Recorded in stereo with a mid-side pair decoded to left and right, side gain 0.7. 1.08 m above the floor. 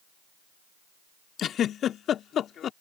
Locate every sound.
1.4 s a giggle: 40° left